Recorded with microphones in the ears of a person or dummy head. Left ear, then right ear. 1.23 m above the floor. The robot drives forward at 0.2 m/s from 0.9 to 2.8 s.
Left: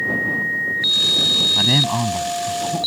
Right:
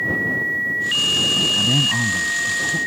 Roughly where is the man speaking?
Left.